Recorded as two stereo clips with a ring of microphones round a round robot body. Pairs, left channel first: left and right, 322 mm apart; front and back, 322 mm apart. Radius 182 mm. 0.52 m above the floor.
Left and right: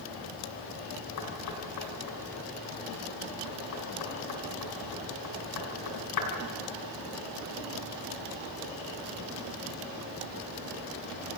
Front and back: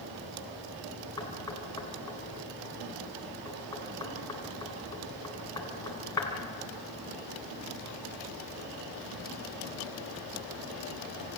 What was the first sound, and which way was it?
Knocking, 80° left.